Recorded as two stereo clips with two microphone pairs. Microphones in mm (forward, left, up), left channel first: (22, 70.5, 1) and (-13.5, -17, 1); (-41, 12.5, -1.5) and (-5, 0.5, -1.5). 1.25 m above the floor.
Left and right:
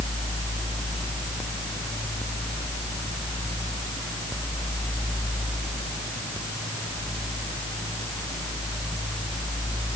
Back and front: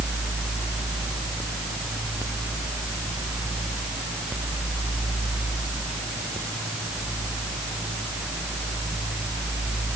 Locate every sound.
Only background noise.